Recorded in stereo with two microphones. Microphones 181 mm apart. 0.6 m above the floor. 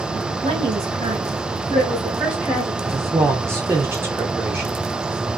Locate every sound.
0.4 s a woman speaking: 40° right (ahead or behind), 1.5 m; by 2.7 s centre (ahead or behind), 1.6 m
2.8 s a man speaking: 15° right (ahead or behind), 0.6 m